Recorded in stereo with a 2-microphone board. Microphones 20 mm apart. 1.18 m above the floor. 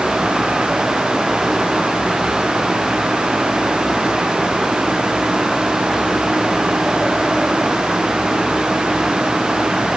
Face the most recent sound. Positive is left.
No sound to turn to.